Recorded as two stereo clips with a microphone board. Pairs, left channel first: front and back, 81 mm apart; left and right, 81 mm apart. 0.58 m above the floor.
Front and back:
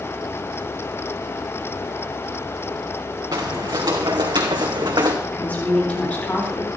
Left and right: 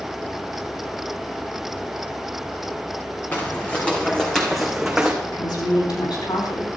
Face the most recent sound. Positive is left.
turn(degrees=70)